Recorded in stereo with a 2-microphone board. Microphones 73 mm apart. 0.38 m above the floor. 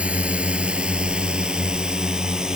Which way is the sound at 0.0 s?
20° right (ahead or behind).